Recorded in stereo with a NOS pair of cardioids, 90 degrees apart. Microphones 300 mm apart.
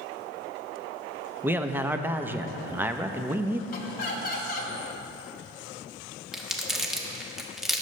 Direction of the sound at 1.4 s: 5° right.